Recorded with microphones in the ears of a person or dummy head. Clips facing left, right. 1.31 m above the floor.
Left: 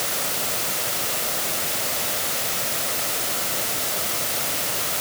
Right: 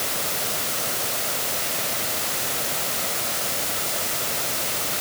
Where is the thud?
I don't hear a thud.